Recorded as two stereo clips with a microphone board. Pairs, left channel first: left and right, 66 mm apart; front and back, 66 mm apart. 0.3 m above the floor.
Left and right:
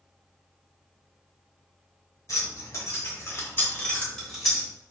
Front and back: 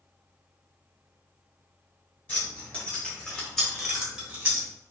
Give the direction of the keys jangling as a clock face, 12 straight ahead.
10 o'clock.